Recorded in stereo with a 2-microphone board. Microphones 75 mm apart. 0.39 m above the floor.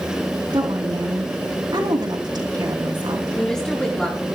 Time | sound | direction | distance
0.5 | a woman speaking | 70° right (ahead or behind) | 4.5 m
3.4 | a woman speaking | 5° left (ahead or behind) | 6 m